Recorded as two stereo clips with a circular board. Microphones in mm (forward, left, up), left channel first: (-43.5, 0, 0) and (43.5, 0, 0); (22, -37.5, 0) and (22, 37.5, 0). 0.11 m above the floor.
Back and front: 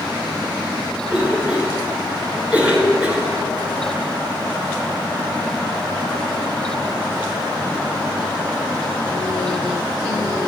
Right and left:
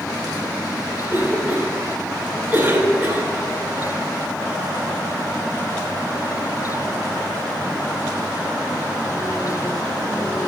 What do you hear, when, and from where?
1.1 s a cough: 65° left, 1.3 m